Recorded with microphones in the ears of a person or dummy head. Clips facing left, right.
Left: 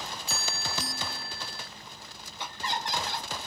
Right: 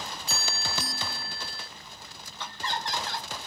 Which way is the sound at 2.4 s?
15° left (ahead or behind).